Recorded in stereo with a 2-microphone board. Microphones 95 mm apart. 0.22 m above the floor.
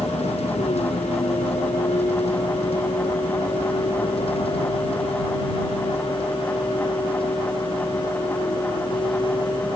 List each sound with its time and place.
0.0 s a vehicle: 90° left; by 9.8 s 55° left (ahead or behind)